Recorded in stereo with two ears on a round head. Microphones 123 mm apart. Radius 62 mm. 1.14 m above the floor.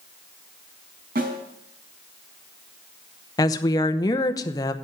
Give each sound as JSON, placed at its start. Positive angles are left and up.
{"t": 1.1, "sound": "a snare drum", "side_deg": -70, "distance_m": 4.0}
{"t": 3.4, "sound": "a woman speaking", "side_deg": 25, "distance_m": 0.8}